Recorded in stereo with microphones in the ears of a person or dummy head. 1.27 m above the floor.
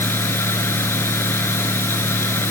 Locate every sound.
0.0 s a fan: 15° left (ahead or behind)